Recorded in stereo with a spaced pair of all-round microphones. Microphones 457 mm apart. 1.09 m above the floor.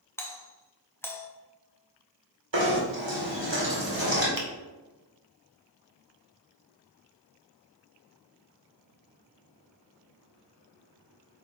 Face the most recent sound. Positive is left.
turn(degrees=-45)  # may be behind; listen again after turning